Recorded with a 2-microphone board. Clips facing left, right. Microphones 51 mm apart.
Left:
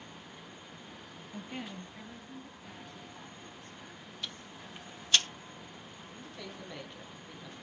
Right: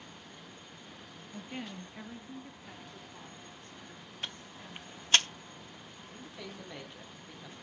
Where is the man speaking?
10° right (ahead or behind), 2.5 m.